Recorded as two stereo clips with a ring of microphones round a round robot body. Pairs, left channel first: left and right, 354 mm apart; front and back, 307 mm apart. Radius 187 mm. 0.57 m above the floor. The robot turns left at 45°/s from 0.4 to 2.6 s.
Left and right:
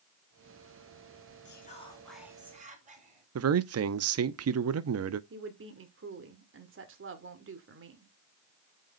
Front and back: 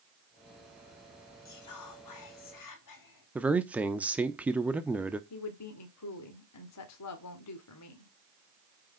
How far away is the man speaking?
About 0.7 m.